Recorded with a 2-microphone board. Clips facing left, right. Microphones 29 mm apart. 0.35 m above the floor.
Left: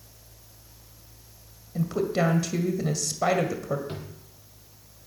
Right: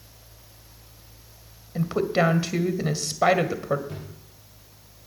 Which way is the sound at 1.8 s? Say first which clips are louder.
Right 3 dB; 35° right (ahead or behind).